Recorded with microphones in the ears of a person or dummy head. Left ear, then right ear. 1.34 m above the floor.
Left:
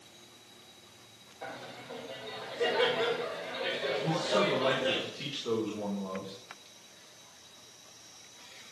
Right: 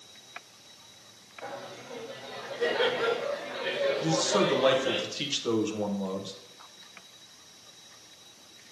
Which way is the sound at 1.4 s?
20° left (ahead or behind).